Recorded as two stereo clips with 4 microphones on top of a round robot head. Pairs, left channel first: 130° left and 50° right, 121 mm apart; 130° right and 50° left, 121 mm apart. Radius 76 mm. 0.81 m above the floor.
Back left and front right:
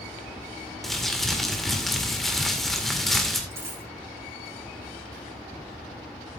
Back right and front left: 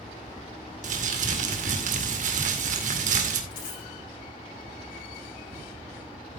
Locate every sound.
0.8 s crumpling: 40° left, 2 m
3.5 s a dropped coin: 120° right, 7.5 m